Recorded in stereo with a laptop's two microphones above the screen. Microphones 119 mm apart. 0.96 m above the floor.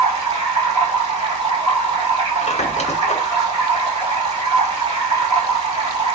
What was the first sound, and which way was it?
Running water, 40° right (ahead or behind).